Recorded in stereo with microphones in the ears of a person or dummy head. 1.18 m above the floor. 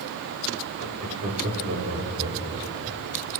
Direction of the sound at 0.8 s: 45° right (ahead or behind).